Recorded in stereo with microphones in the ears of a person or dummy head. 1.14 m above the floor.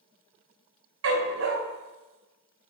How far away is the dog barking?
About 2.5 m.